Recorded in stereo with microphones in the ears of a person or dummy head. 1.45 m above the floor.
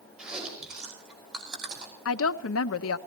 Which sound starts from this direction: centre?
Chewing, at 0.2 s.